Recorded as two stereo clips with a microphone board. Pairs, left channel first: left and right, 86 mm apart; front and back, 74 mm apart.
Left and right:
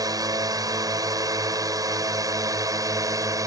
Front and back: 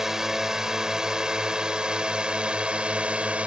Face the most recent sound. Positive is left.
turn(degrees=-115)